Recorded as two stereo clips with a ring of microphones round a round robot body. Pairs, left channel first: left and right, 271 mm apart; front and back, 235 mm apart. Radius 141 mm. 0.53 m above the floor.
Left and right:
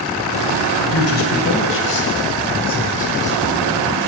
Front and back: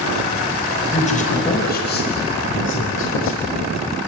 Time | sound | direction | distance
0.9 | a man speaking | 60° left | 3.5 m